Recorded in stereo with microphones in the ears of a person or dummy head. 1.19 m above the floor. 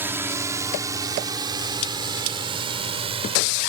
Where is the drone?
10° right (ahead or behind); by 3.7 s 30° right (ahead or behind).